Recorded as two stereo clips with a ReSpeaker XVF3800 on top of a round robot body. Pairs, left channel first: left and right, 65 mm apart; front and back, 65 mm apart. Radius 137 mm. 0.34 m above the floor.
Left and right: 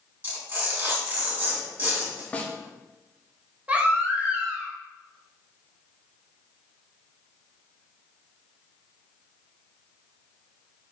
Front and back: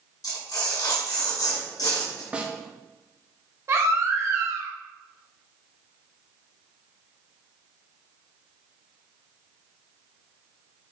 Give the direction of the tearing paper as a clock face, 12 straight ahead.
1 o'clock.